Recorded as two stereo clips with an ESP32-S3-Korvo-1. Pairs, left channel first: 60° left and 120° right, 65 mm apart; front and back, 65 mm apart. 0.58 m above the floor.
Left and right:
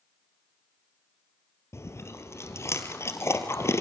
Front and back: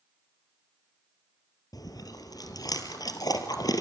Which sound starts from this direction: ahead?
Chewing, at 1.7 s.